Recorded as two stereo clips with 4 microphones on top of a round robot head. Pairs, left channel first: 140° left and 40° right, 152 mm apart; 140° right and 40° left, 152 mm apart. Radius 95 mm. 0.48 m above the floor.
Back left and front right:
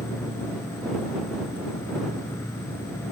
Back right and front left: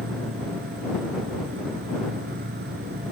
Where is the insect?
65° left.